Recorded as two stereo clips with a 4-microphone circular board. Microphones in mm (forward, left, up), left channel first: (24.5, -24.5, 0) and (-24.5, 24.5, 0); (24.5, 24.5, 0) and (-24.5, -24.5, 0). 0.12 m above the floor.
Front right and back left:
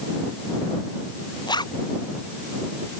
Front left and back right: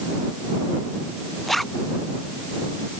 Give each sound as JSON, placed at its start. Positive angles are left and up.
{"t": 1.5, "sound": "a zipper", "azimuth_deg": -45}